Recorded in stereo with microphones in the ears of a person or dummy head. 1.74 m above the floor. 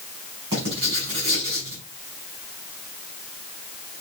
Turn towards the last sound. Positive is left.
turn(degrees=-30)  # may be behind; listen again after turning